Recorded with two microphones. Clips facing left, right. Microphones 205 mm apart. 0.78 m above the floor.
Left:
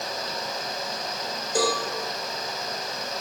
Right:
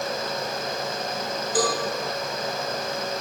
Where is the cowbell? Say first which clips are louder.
Even; 25° left (ahead or behind), 1.3 m.